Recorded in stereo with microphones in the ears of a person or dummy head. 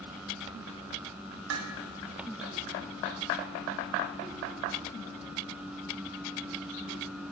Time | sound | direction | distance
1.5 | dishes clattering | 75° right (ahead or behind) | 1.0 m